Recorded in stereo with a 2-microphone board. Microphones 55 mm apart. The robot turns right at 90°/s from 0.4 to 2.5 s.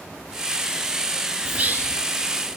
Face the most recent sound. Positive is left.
turn(degrees=-65)